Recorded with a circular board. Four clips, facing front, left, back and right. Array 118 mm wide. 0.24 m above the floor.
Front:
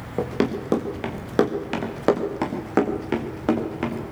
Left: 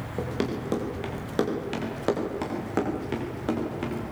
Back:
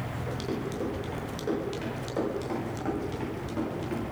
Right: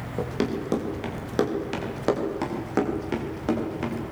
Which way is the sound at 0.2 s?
5° right.